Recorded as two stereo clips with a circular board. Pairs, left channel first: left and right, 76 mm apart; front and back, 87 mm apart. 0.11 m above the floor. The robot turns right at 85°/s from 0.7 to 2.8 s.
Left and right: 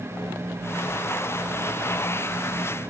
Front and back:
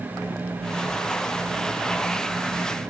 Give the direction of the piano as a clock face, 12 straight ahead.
No piano in this recording.